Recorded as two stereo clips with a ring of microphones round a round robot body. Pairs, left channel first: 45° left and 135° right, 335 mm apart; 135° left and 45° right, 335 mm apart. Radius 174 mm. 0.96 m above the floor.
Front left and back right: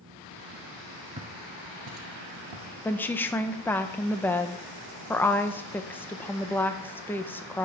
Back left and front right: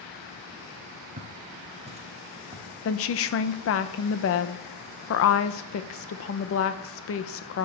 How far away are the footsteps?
About 1.0 m.